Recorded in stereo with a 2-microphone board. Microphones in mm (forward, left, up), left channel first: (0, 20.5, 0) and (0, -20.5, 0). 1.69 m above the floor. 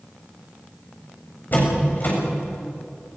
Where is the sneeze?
I don't hear a sneeze.